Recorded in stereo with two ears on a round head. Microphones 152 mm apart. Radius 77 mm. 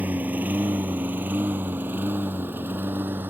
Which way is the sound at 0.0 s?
10° right (ahead or behind).